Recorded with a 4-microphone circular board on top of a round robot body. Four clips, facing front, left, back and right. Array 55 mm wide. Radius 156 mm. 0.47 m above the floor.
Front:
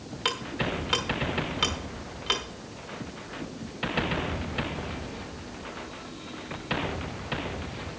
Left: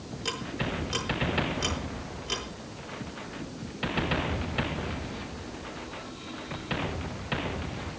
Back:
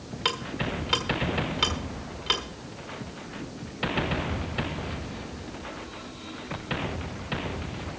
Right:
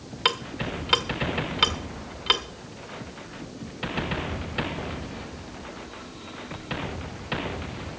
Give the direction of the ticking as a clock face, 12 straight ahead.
3 o'clock.